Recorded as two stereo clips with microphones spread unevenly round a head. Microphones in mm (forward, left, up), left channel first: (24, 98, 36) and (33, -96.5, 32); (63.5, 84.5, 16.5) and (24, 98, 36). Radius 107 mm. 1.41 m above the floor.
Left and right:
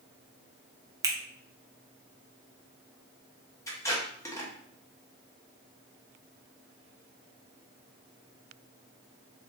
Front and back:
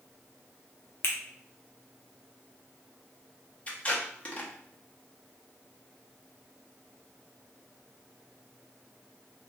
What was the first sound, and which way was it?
A finger snap, 15° right.